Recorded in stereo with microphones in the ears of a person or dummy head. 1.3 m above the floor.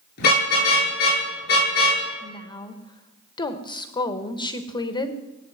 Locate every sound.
0.2 s a car horn: 60° left (ahead or behind), 9.5 m
2.2 s a woman speaking: 20° left (ahead or behind), 1.2 m